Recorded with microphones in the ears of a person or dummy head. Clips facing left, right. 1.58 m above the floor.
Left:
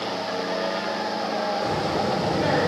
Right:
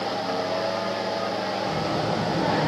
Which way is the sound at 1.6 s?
40° left (ahead or behind).